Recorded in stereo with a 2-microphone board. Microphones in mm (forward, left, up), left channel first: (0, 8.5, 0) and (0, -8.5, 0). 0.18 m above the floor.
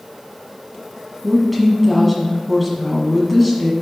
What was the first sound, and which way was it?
A woman speaking, centre (ahead or behind).